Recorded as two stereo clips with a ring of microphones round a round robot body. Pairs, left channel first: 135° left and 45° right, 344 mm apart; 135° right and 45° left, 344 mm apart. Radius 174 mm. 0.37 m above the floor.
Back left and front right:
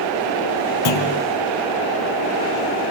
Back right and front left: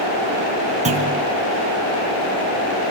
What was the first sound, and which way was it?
A clunk, 115° left.